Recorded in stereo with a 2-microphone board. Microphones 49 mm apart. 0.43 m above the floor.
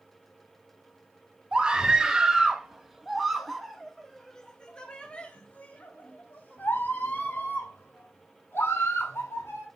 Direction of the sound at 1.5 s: 20° right (ahead or behind).